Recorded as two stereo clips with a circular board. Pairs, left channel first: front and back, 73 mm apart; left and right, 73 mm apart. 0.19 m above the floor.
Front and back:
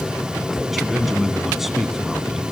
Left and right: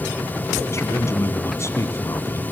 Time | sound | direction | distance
0.7 | a man speaking | 95° left | 1.3 m